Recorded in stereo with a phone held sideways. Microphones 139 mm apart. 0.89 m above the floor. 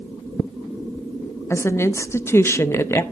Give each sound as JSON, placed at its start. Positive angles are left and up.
{"t": 1.5, "sound": "a woman speaking", "side_deg": 20, "distance_m": 0.5}